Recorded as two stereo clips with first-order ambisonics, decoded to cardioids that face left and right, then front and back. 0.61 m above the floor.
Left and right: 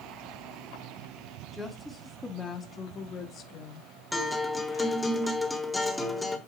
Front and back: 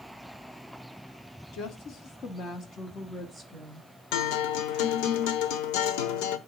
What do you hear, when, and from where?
1.5 s a woman speaking: straight ahead, 1.6 m; by 3.9 s 100° left, 1.4 m
4.1 s a guitar: 5° left, 1.2 m